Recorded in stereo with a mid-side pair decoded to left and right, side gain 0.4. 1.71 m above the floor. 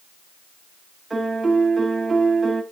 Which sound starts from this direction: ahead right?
A piano, at 1.1 s.